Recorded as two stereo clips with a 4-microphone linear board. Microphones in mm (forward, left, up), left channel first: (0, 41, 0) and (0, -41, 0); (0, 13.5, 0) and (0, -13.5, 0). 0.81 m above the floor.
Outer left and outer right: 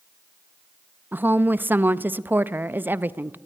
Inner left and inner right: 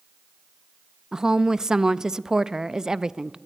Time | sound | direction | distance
1.1 | a woman speaking | 25° right (ahead or behind) | 0.5 m